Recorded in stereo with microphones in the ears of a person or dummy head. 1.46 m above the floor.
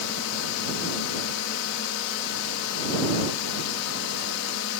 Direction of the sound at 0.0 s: 80° left.